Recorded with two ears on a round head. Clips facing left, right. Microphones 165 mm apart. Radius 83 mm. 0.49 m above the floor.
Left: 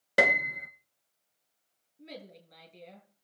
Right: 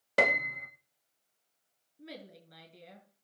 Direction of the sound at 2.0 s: 10° right (ahead or behind).